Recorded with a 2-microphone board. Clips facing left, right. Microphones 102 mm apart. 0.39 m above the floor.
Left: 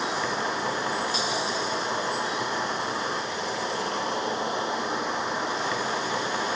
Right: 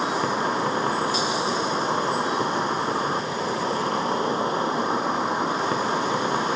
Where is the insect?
45° right (ahead or behind), 0.8 m.